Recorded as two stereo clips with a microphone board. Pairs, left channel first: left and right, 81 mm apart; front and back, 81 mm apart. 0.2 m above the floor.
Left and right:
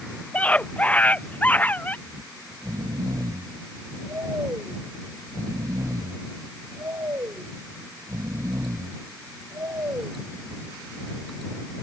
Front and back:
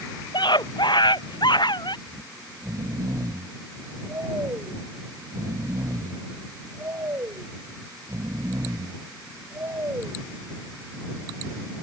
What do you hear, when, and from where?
0.3 s a scream: 15° left; by 2.0 s 20° left
2.1 s snoring: 135° right